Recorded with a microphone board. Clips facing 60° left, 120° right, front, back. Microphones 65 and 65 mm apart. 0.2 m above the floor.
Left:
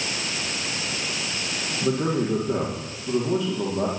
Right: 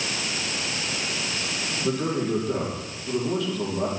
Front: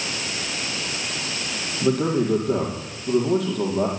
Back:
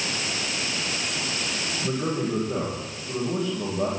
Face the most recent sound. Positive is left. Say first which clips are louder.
# left 2 dB, front 7 dB
turn(degrees=-10)